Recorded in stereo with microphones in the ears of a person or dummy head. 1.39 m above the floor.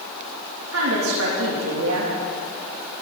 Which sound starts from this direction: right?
A woman speaking, at 0.7 s.